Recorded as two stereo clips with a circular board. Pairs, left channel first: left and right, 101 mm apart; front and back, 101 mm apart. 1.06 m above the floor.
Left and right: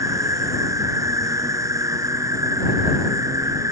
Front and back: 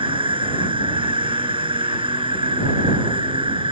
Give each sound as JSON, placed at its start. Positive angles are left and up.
{"t": 0.0, "sound": "an insect", "azimuth_deg": -150}